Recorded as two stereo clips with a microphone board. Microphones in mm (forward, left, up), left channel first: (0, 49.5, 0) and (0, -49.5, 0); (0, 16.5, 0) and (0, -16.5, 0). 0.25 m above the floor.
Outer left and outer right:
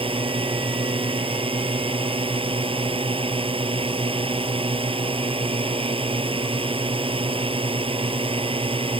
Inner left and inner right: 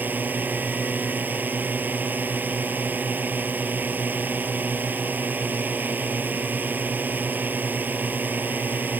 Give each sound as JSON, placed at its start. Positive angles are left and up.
{"t": 0.0, "sound": "a drone", "side_deg": -65}